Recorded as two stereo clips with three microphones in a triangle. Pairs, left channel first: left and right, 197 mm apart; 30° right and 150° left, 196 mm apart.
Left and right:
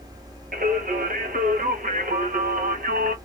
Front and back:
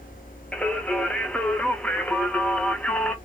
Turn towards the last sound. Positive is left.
turn(degrees=-115)